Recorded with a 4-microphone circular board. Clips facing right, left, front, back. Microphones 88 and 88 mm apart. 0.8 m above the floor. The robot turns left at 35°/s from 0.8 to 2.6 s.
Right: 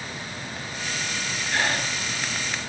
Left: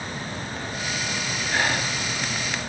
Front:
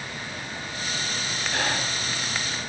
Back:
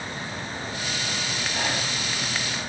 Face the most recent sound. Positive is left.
turn(degrees=-20)